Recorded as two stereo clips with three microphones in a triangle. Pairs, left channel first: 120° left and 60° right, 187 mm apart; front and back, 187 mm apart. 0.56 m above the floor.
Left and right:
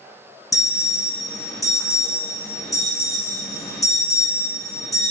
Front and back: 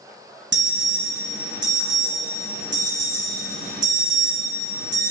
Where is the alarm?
170° right, 4.5 m.